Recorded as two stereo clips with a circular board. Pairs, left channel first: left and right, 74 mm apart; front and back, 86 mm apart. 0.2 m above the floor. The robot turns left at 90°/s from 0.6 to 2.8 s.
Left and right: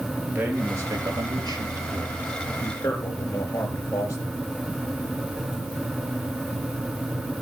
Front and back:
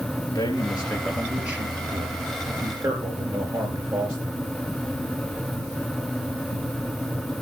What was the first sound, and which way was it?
A man speaking, 25° right.